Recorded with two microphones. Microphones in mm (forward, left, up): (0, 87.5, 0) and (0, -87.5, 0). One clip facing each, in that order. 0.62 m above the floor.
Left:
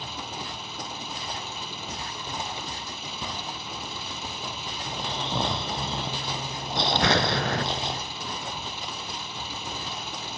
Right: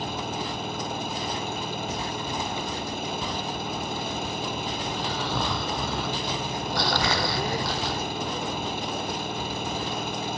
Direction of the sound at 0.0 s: 55° right (ahead or behind).